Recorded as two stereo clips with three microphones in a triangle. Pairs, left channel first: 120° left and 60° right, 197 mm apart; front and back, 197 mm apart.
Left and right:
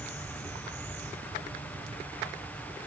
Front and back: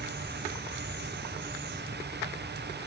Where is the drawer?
No drawer in this recording.